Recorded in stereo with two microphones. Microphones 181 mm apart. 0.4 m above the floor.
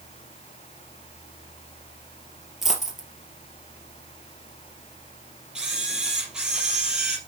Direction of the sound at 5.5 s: 5° right (ahead or behind).